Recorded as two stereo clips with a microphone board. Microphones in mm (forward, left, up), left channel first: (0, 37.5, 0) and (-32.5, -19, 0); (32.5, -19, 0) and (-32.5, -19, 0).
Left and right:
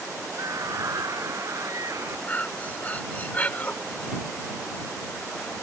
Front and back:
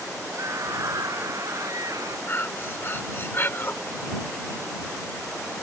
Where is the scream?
145° right; by 2.2 s 150° right.